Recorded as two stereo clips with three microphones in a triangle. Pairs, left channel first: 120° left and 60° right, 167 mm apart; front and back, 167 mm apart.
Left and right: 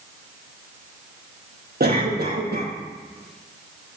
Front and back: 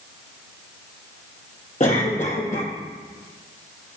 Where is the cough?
40° right, 4.5 m.